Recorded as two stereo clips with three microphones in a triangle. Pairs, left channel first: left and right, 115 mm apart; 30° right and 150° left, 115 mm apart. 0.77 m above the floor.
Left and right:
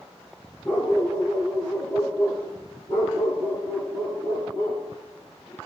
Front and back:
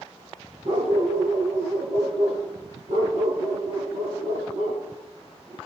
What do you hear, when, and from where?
0.7 s a dog barking: 160° left, 7.5 m; by 5.6 s 145° left, 6 m